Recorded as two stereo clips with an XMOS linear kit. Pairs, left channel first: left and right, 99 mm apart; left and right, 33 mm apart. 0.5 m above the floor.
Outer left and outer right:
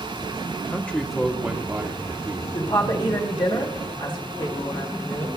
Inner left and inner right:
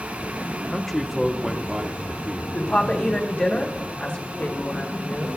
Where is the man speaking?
20° left (ahead or behind), 0.8 m; by 2.4 s 40° right (ahead or behind), 1.0 m.